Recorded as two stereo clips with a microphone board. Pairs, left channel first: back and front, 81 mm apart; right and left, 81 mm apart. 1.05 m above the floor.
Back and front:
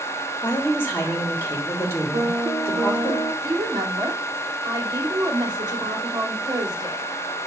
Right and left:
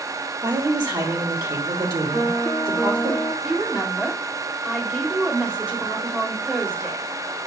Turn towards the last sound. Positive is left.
turn(degrees=15)